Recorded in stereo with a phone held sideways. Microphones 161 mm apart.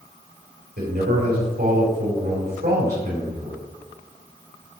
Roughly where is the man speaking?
Right.